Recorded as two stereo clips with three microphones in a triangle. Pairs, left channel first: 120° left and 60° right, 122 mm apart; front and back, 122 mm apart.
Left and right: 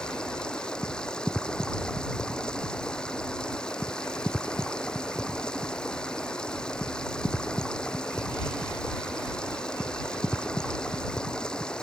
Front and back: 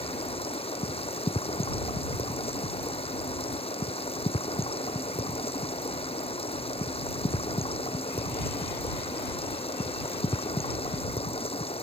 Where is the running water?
35° left.